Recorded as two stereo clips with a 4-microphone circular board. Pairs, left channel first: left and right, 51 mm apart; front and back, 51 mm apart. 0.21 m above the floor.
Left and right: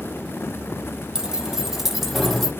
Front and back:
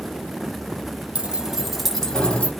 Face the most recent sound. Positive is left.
turn(degrees=15)